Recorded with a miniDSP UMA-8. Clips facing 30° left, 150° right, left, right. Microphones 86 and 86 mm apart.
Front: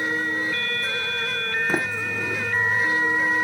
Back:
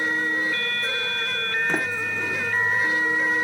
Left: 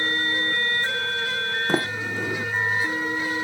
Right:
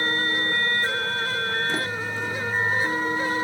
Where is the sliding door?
115° left, 1.1 m.